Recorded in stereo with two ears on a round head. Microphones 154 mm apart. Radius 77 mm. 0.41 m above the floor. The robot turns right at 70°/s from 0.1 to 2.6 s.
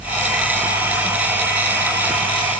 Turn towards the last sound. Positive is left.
No sound to turn to.